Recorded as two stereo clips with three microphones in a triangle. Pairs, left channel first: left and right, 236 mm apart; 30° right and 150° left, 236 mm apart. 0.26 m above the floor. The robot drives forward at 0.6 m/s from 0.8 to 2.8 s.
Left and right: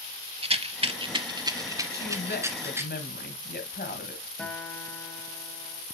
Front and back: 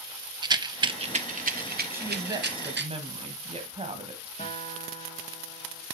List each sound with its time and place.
0.4 s a rattle: 145° right, 0.7 m; by 2.9 s 170° right, 1.7 m
1.9 s a woman speaking: 75° left, 1.7 m; by 4.3 s 100° left, 1.7 m
4.4 s a guitar: 5° left, 1.9 m